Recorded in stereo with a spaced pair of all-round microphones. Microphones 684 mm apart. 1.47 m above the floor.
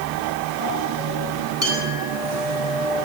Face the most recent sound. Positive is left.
turn(degrees=20)  # may be behind; listen again after turning